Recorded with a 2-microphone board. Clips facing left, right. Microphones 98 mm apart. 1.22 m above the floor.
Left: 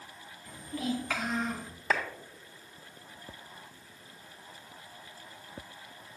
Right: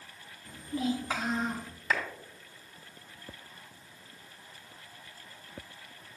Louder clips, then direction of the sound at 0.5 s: Right 2 dB; 30° right (ahead or behind).